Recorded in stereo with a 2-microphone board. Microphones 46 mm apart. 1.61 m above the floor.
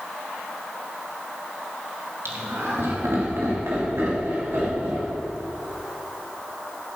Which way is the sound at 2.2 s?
80° right.